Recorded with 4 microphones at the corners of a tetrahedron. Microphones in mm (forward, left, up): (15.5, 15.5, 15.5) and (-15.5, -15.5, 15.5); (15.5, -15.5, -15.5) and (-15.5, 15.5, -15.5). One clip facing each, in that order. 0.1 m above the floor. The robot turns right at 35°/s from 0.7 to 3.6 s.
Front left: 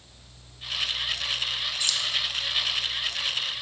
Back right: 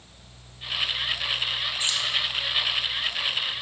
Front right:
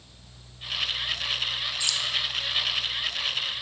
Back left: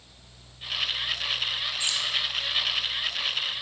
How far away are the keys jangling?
About 0.9 m.